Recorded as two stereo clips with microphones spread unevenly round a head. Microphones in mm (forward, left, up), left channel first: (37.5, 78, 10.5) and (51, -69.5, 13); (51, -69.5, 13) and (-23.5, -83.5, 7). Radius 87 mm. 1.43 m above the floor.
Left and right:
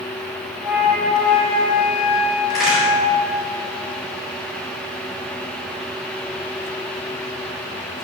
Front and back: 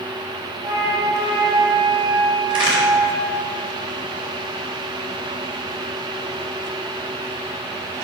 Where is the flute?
165° right, 3 m.